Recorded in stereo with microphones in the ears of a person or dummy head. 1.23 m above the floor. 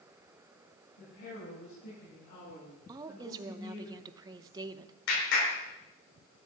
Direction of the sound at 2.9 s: 20° right (ahead or behind).